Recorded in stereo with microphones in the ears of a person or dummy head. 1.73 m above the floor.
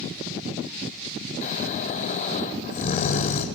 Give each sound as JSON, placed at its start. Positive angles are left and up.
{"t": 1.4, "sound": "snoring", "side_deg": 40, "distance_m": 2.5}